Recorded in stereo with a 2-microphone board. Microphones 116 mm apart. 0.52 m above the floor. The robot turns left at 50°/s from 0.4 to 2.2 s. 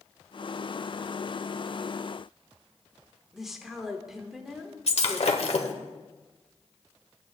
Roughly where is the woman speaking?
Centre.